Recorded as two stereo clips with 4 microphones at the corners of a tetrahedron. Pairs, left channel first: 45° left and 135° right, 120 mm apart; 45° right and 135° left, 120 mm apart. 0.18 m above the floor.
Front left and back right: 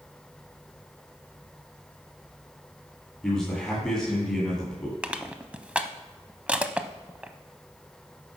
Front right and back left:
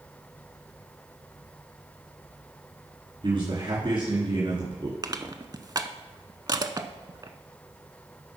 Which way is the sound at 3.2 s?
125° left.